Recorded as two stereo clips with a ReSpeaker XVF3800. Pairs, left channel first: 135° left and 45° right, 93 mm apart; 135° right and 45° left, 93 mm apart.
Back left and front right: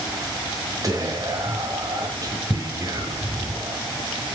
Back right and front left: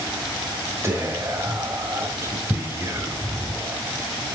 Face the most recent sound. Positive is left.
turn(degrees=-10)